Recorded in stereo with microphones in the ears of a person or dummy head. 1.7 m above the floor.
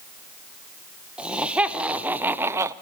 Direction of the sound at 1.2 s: 10° right (ahead or behind).